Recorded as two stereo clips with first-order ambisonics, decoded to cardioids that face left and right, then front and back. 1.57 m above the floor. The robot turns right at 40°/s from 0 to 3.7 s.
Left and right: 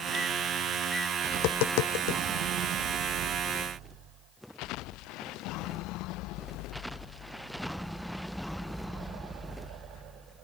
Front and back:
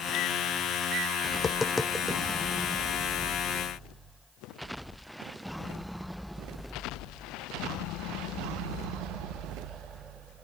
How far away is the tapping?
About 0.6 m.